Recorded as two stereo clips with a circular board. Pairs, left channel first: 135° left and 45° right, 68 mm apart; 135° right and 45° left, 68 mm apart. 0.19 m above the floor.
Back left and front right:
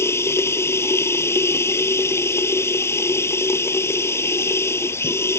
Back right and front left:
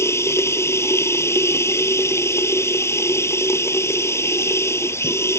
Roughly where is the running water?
Behind.